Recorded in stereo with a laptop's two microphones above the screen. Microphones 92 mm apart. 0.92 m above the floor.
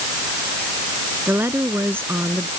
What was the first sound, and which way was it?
A woman speaking, 25° right (ahead or behind).